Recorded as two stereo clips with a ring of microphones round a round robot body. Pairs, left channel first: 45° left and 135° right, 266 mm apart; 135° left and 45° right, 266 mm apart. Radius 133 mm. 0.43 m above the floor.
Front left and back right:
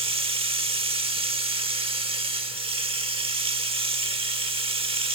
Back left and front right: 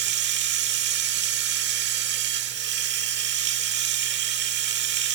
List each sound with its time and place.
0.0 s running water: 75° right, 1.1 m